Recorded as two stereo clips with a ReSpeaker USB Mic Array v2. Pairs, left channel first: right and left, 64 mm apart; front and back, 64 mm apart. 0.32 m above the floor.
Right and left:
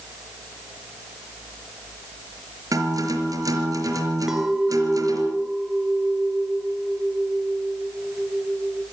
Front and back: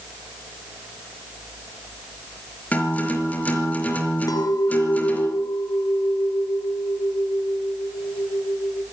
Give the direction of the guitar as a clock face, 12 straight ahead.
10 o'clock.